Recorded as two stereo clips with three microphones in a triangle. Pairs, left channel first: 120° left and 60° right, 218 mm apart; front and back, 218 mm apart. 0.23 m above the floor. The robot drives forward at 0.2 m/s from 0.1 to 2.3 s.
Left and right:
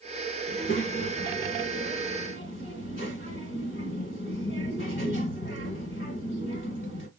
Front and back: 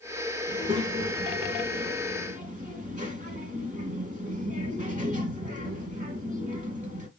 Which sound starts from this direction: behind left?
A child speaking, at 0.5 s.